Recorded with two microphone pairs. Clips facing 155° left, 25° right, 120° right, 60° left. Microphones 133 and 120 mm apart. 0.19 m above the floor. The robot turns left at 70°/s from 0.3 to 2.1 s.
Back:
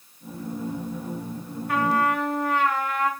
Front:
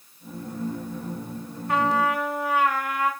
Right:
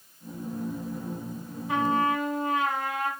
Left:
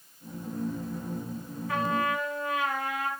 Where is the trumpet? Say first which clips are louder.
Even, right 4 dB; 65° right, 1.0 m; by 3.1 s 95° right, 1.0 m.